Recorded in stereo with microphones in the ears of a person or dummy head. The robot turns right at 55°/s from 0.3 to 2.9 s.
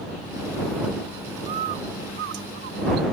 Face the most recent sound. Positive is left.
turn(degrees=-65)